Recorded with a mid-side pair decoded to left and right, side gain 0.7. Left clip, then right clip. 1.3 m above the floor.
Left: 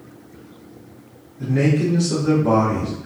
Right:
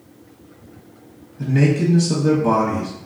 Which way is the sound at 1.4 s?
45° right.